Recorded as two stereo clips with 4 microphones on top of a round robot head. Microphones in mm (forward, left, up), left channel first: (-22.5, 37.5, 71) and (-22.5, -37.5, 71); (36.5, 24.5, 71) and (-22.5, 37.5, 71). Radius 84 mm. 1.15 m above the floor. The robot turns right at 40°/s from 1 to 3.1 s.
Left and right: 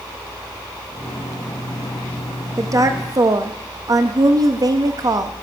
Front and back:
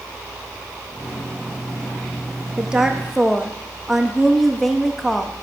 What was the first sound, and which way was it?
A woman speaking, 125° right.